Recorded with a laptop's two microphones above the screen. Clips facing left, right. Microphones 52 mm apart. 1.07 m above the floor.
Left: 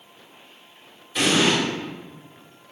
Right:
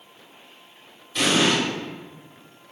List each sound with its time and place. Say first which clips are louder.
1.1 s an explosion: left 1 dB; 5° left (ahead or behind), 3.5 m